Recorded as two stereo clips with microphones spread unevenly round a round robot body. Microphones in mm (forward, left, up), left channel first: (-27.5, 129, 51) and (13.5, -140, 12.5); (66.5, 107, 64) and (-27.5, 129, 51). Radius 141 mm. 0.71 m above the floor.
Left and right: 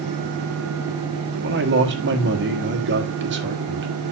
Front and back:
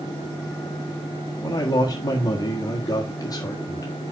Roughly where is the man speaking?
Ahead right.